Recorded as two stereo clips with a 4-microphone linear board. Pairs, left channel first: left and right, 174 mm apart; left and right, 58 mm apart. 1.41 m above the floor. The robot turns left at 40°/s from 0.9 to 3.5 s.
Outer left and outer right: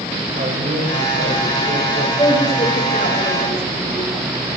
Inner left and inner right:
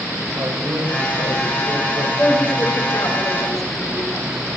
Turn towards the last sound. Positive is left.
turn(degrees=105)